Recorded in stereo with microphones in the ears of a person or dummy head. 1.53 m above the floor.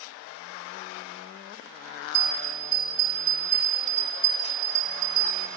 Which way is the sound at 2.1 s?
25° left (ahead or behind).